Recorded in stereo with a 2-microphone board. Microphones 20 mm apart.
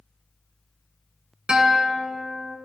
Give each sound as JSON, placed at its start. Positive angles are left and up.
{"t": 1.5, "sound": "a guitar", "side_deg": -45, "distance_m": 1.5}